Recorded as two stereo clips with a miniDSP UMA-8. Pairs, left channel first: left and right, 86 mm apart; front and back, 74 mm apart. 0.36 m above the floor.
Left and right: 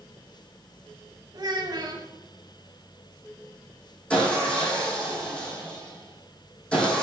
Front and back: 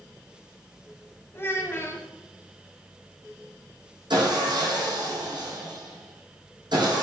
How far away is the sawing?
About 3.5 m.